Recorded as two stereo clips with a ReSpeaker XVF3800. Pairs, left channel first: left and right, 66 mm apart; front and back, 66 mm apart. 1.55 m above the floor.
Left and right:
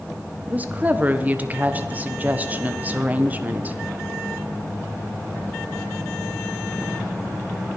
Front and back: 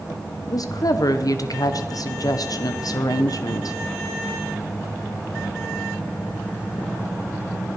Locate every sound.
0.5 s a woman speaking: 25° right, 1.1 m